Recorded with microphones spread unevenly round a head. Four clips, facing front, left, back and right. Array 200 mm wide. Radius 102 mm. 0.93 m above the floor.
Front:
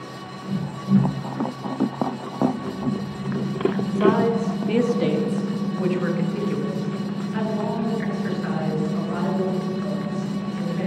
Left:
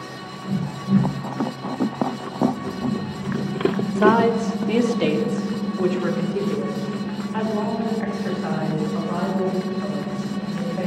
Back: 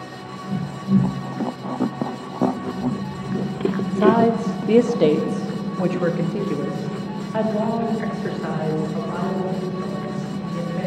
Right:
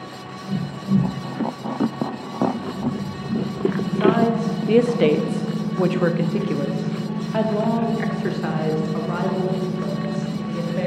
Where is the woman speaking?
155° left, 0.7 m; by 10.9 s 95° right, 3.5 m.